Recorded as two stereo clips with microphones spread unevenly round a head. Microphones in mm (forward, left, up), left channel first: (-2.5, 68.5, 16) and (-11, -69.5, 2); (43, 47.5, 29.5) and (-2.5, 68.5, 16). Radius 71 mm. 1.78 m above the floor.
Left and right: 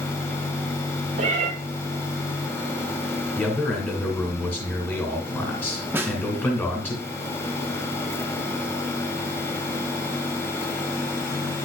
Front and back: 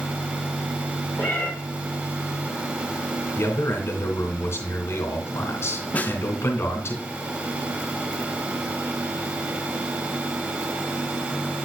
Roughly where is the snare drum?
Ahead.